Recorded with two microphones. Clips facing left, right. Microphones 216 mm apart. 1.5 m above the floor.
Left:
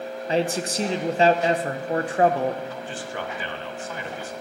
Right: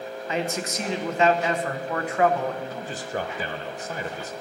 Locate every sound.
0.3 s a man speaking: 30° left (ahead or behind), 0.8 m
2.7 s a man speaking: 40° right (ahead or behind), 0.7 m